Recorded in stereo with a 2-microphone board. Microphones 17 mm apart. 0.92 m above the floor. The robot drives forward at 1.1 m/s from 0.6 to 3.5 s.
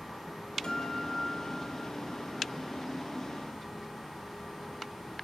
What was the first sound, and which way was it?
A guitar, 70° left (ahead or behind).